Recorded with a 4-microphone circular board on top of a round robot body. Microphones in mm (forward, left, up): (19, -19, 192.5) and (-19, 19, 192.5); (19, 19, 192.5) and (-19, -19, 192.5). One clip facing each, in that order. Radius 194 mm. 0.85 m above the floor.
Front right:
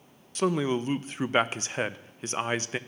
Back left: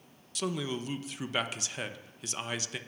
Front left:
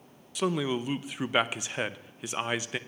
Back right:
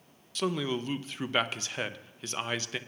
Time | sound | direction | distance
0.3 | a man speaking | 25° right | 0.7 m